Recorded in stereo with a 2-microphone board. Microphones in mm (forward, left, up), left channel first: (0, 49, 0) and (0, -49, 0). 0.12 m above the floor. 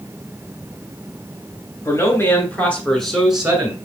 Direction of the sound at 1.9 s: 35° left (ahead or behind).